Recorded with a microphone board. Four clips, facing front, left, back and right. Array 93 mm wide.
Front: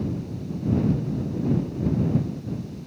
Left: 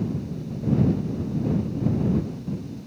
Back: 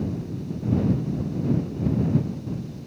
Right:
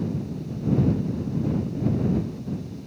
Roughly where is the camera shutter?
I don't hear a camera shutter.